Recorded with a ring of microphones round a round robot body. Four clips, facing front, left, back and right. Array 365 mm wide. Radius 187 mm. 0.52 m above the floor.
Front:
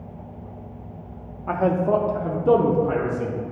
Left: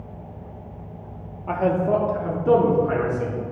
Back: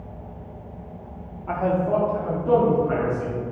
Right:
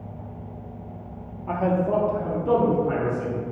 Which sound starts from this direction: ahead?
A man speaking, at 1.5 s.